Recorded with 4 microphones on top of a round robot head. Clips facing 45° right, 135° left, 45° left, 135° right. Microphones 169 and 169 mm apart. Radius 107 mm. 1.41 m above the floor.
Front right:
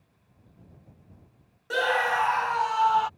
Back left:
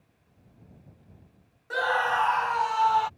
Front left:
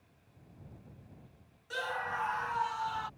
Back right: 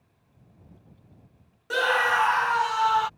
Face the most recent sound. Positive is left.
turn(degrees=-140)